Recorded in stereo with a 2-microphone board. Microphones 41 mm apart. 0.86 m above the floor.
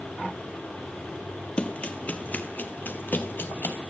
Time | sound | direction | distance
1.6 | running footsteps | 25° left (ahead or behind) | 1.3 m